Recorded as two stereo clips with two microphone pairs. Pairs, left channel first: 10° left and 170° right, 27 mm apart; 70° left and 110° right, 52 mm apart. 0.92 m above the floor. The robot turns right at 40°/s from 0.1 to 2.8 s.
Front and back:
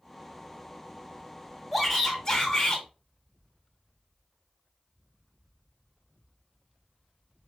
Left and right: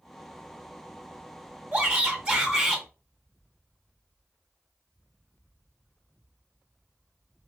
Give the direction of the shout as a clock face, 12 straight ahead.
2 o'clock.